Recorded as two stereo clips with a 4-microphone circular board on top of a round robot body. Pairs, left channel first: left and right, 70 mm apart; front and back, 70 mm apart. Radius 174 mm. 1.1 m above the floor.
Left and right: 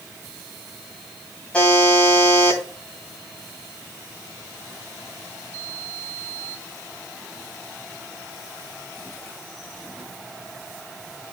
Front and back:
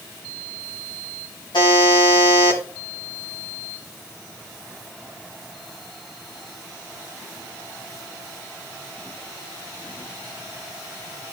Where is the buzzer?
20° left, 2.5 m.